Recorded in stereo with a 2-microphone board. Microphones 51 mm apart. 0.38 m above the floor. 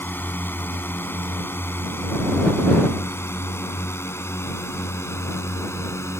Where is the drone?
40° left (ahead or behind); by 6.2 s 65° left (ahead or behind).